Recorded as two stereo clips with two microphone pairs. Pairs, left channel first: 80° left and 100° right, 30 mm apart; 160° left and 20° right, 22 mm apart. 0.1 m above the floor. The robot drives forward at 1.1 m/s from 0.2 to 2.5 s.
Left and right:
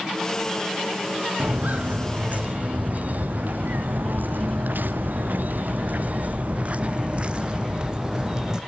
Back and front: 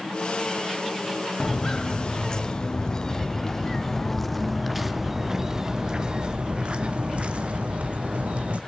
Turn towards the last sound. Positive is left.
turn(degrees=-35)